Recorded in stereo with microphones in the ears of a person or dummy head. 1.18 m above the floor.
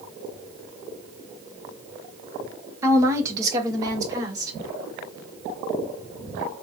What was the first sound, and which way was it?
A woman speaking, 20° right (ahead or behind).